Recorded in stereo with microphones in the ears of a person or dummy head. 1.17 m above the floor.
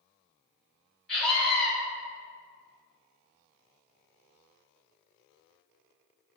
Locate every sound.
1.1 s a scream: 5° left (ahead or behind), 2 m